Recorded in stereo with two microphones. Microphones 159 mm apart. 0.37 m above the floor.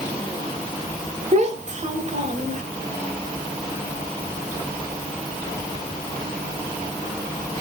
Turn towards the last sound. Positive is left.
turn(degrees=-50)  # may be behind; listen again after turning